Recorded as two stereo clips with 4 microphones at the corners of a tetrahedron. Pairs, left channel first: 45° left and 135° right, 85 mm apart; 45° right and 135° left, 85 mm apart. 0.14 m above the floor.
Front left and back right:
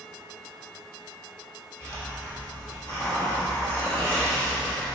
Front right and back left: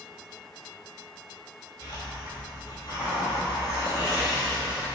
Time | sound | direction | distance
1.8 | a hiss | 10° right | 1.0 m